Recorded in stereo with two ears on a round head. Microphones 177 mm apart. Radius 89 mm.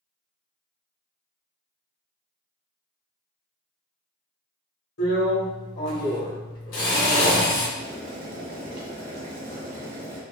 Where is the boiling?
60° right (ahead or behind), 1.5 m.